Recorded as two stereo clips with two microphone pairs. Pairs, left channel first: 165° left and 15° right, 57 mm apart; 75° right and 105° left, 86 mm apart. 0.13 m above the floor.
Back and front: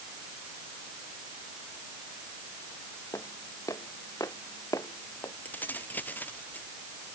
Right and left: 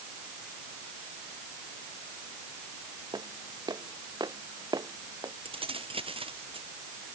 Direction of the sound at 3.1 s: 145° left.